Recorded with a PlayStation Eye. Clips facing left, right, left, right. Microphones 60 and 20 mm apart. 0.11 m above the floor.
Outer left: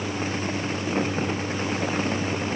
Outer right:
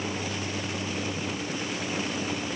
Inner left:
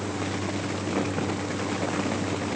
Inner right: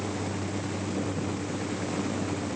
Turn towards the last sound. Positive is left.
No sound to turn to.